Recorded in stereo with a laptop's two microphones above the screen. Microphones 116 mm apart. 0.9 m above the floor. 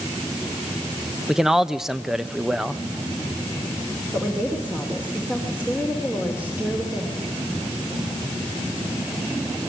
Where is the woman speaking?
15° right (ahead or behind), 3 m.